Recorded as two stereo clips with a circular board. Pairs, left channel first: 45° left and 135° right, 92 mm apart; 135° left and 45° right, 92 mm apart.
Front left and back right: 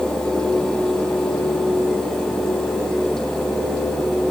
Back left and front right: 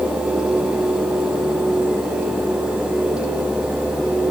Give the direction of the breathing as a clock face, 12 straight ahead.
I don't hear breathing.